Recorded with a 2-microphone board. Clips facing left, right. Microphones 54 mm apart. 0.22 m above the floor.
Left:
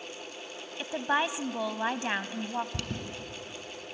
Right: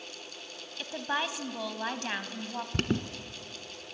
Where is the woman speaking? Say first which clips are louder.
Left 4 dB; 20° left (ahead or behind), 1.1 m.